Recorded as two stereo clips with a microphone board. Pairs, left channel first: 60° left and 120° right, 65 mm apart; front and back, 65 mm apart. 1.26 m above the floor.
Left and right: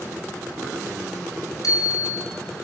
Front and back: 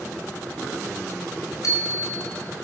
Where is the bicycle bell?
35° left, 5 m.